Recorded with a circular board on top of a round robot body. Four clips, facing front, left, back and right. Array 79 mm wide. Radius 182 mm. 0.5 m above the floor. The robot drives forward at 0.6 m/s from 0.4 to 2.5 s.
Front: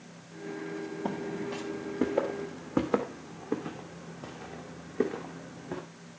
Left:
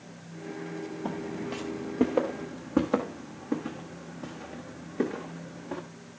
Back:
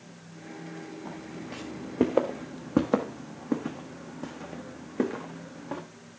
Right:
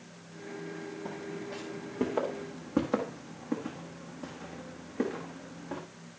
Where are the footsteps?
25° left, 0.7 m; by 5.8 s straight behind, 3 m.